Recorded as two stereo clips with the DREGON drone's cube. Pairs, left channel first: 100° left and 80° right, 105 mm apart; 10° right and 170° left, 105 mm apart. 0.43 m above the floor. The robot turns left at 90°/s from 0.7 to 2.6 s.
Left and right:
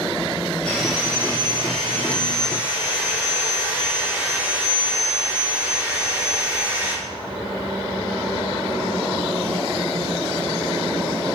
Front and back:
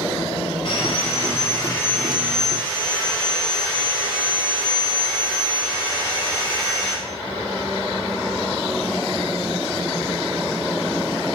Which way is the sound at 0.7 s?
20° left.